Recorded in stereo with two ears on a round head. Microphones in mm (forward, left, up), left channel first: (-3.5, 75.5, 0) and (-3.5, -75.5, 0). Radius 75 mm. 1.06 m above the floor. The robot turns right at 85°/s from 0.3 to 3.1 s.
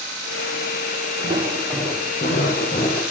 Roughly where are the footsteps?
Right.